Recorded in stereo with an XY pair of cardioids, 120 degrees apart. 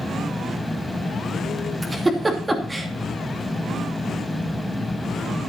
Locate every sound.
0.0 s a fan: 10° left, 1.2 m
1.8 s a giggle: 15° right, 2.5 m